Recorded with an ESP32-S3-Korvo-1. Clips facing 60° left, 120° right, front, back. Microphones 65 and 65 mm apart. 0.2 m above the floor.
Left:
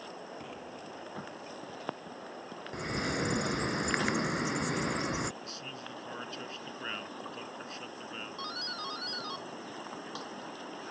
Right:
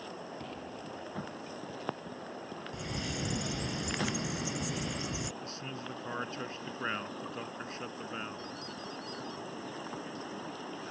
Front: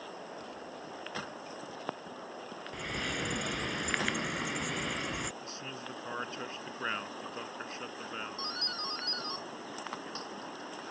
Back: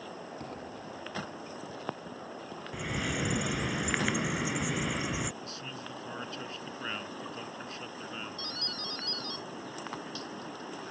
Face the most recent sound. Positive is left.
turn(degrees=60)